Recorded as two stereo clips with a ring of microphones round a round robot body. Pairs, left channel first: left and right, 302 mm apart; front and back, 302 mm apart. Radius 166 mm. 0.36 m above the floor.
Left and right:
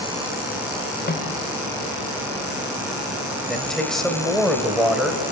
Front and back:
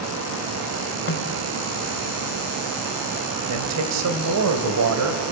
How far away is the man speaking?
About 2.5 m.